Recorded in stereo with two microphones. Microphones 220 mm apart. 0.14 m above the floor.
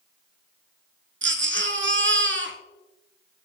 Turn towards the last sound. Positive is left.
turn(degrees=-60)  # may be behind; listen again after turning